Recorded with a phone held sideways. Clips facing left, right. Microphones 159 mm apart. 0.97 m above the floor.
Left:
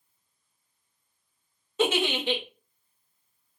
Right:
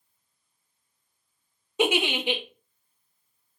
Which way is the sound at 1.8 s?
15° right (ahead or behind).